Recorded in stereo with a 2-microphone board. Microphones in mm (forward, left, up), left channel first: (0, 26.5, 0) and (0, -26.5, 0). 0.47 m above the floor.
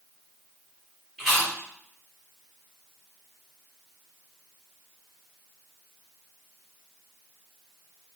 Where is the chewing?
Centre (ahead or behind), 1.5 m.